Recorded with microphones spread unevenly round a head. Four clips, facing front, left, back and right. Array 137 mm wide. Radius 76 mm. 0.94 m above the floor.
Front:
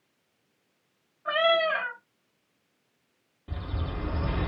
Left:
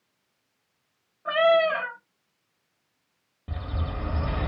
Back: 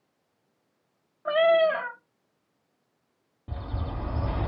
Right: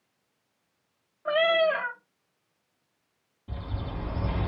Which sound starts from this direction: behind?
A cat meowing, at 1.2 s.